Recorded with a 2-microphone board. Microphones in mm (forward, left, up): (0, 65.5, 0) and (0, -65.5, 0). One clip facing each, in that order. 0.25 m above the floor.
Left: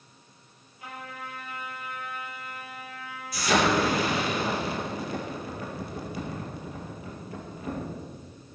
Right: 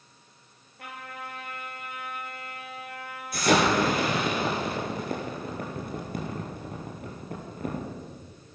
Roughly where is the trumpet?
Right.